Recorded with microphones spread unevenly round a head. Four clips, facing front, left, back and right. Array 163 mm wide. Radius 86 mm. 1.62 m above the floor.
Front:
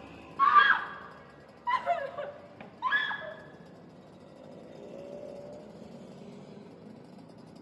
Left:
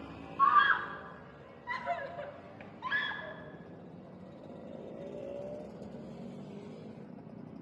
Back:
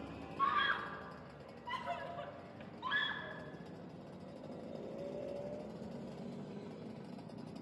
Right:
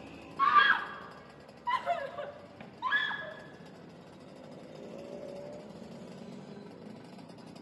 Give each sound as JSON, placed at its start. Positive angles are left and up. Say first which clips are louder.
{"t": 0.4, "sound": "a scream", "louder": "right 1 dB, front 13 dB", "azimuth_deg": -50, "distance_m": 0.7}